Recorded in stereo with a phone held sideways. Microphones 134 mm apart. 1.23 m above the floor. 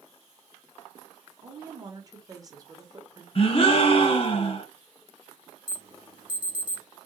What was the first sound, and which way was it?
A woman speaking, 25° right (ahead or behind).